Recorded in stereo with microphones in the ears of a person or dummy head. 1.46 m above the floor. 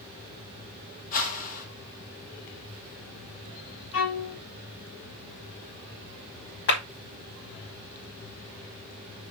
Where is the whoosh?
45° left (ahead or behind), 1.9 m.